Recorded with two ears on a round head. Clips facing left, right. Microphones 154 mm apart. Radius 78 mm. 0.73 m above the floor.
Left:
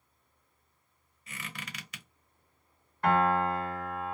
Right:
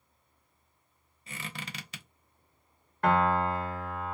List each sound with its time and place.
1.3 s a squeak: 25° right (ahead or behind), 0.8 m
3.0 s a piano: 50° right (ahead or behind), 1.3 m